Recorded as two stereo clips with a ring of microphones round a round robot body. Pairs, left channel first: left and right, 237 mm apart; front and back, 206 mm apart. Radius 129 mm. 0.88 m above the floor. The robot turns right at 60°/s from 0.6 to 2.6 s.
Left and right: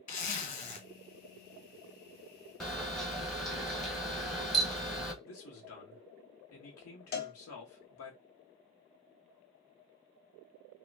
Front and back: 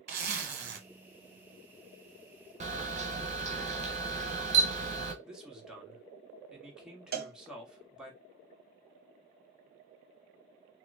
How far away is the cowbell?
About 1.1 m.